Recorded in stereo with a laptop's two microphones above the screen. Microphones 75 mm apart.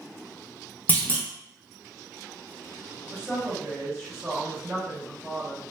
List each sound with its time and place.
0.9 s a clunk: 25° left (ahead or behind), 0.7 m
3.1 s a woman speaking: 5° right (ahead or behind), 2.0 m